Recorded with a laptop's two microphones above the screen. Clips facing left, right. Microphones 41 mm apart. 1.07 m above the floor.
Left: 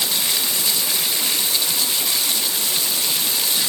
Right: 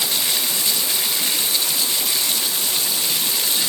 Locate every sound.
Only background noise.